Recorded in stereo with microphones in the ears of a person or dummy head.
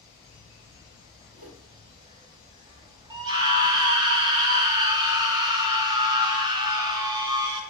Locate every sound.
0.0 s an insect: 20° right (ahead or behind), 1.4 m
1.3 s a whoosh: 60° right (ahead or behind), 2.5 m
3.1 s a scream: 25° right (ahead or behind), 0.9 m